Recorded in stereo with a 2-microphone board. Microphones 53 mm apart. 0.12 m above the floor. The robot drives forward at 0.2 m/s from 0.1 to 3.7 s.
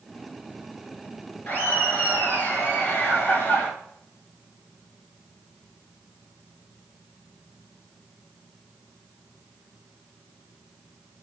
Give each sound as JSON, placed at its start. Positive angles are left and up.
{"t": 1.5, "sound": "laughter", "side_deg": 30, "distance_m": 1.3}